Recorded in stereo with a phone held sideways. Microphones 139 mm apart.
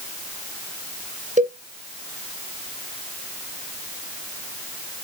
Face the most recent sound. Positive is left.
turn(degrees=-65)  # may be behind; listen again after turning